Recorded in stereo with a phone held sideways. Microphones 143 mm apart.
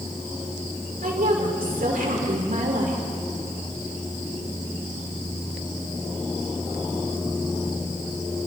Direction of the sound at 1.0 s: 80° right.